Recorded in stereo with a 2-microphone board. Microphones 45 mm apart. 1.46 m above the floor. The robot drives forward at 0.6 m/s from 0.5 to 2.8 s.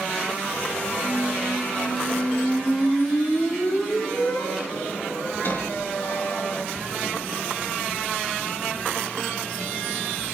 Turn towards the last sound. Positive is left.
turn(degrees=55)  # may be behind; listen again after turning